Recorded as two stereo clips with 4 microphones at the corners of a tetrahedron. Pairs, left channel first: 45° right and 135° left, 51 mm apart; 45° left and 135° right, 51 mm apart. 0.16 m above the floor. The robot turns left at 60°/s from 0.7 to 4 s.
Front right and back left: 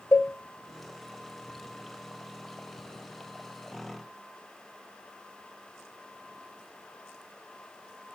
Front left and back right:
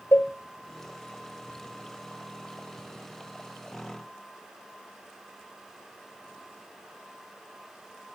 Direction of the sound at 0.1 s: 5° right.